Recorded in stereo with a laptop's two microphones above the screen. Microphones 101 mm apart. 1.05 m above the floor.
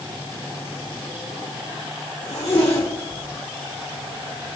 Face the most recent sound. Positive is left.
turn(degrees=75)  # may be behind; listen again after turning